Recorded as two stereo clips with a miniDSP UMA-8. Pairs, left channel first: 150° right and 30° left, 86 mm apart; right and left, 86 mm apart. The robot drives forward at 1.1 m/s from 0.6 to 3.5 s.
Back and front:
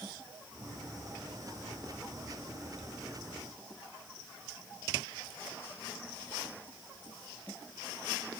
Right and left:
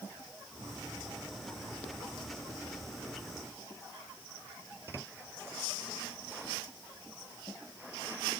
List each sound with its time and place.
Only background noise.